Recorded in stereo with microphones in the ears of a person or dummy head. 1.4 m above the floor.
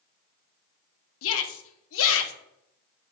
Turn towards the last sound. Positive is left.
turn(degrees=75)  # may be behind; listen again after turning